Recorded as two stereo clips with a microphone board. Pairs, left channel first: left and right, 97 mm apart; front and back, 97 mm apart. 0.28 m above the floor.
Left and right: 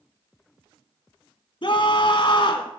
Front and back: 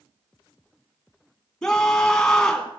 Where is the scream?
80° left, 2.5 m.